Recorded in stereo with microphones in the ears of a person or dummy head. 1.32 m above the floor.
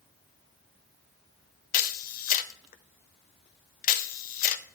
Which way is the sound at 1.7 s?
40° left (ahead or behind).